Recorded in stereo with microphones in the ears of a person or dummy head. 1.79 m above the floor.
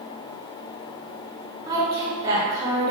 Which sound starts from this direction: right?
A woman speaking, at 1.7 s.